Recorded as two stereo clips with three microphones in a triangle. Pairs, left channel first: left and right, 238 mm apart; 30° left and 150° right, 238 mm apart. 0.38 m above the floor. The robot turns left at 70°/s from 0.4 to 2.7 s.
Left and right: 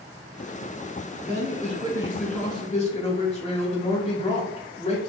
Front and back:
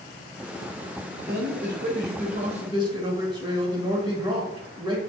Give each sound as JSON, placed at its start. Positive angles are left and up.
{"t": 1.2, "sound": "a man speaking", "azimuth_deg": -115, "distance_m": 1.2}